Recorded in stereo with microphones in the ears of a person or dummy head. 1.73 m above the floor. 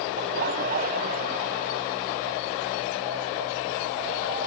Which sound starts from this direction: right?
Laughter, at 0.2 s.